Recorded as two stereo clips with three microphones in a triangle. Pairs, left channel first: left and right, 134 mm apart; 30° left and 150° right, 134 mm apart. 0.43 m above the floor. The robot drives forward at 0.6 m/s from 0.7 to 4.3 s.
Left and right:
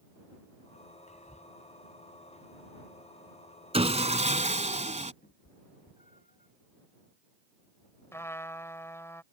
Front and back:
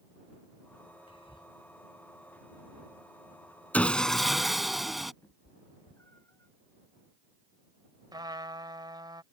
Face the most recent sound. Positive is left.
turn(degrees=160)